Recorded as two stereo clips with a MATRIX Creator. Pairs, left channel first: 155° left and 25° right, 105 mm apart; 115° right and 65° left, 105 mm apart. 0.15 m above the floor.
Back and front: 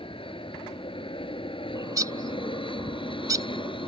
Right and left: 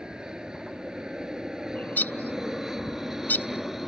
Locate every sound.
0.0 s an aircraft: 150° left; by 3.9 s 155° left
1.8 s a bird: 50° right